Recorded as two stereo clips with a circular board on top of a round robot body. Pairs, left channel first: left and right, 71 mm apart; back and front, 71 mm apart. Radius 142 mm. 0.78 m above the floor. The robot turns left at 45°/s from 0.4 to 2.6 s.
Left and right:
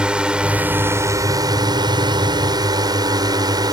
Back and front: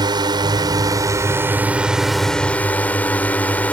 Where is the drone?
15° right; by 3.7 s 110° right.